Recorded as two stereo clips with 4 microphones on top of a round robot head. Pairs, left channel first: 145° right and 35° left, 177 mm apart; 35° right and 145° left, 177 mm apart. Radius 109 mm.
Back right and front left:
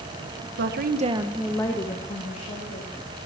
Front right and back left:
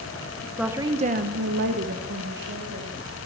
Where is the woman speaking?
60° left, 1.2 m; by 3.0 s 175° left, 2.5 m.